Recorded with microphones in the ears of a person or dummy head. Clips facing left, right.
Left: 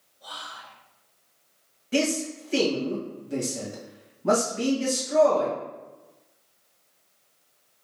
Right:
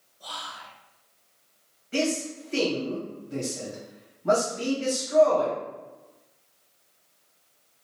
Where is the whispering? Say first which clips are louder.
Right 2 dB; 80° right, 1.0 m.